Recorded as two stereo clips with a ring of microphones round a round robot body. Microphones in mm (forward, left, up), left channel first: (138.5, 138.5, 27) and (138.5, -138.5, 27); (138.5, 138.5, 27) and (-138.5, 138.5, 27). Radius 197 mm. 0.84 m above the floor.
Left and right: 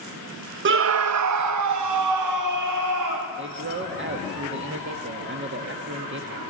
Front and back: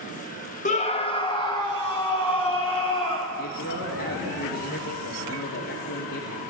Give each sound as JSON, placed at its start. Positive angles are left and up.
{"t": 0.7, "sound": "a scream", "azimuth_deg": -55, "distance_m": 0.6}
{"t": 3.4, "sound": "a man speaking", "azimuth_deg": -45, "distance_m": 1.8}